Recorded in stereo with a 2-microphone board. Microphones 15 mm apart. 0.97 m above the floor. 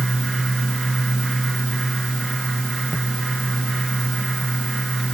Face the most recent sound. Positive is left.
No sound to turn to.